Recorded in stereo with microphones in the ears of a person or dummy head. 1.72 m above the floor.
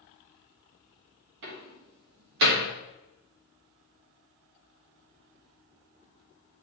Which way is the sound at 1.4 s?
55° right (ahead or behind).